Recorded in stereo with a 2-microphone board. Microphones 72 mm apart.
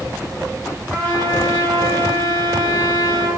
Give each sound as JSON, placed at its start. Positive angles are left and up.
{"t": 0.9, "sound": "a trumpet", "side_deg": 15, "distance_m": 2.0}